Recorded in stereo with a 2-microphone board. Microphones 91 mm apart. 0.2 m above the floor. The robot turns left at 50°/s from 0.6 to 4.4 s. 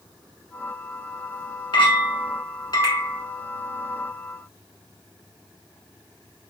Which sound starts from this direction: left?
A clink, at 1.7 s.